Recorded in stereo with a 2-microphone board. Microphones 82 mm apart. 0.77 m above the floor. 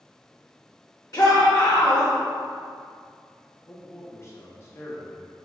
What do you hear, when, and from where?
1.1 s a shout: 45° left (ahead or behind), 0.7 m
3.7 s a man speaking: 35° left (ahead or behind), 0.5 m